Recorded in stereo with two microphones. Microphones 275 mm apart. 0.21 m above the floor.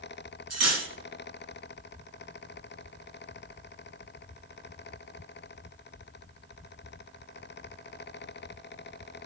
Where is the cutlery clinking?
65° right (ahead or behind), 1.2 m.